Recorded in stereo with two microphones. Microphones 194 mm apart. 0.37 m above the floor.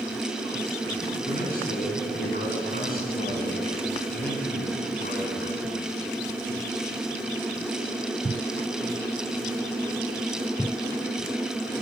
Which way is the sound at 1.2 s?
50° left (ahead or behind).